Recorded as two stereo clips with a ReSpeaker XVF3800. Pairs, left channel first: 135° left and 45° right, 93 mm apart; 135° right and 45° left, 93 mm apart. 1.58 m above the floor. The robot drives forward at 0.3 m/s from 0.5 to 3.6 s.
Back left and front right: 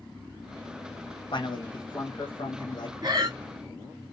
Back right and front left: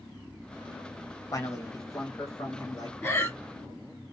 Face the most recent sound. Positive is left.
turn(degrees=-95)